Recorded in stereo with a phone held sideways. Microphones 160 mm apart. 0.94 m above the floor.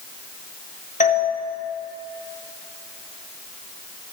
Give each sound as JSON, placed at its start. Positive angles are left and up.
{"t": 1.0, "sound": "a doorbell", "side_deg": 50, "distance_m": 1.3}